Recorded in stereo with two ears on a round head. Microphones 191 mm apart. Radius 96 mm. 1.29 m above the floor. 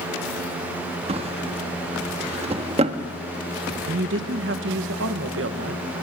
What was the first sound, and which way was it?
A drawer, 30° right (ahead or behind).